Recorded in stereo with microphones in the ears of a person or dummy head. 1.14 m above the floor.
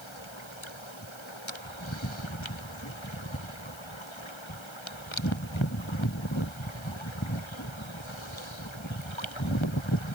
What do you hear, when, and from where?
Only background noise.